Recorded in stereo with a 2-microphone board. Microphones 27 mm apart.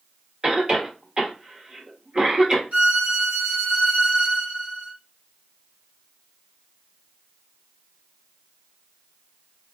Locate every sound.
0.4 s a cough: 30° right (ahead or behind), 1.0 m
2.7 s a violin: 55° right (ahead or behind), 2.5 m